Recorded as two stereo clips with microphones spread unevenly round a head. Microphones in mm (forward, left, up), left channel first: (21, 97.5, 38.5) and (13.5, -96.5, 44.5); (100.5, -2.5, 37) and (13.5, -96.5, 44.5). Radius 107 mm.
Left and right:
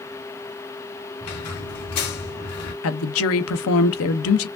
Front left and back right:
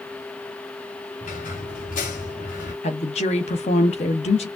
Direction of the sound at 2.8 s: 105° left.